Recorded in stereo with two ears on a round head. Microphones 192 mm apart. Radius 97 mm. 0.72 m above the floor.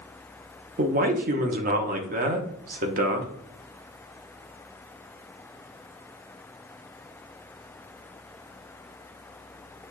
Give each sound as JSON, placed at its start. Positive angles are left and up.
{"t": 0.8, "sound": "a man speaking", "side_deg": -45, "distance_m": 0.7}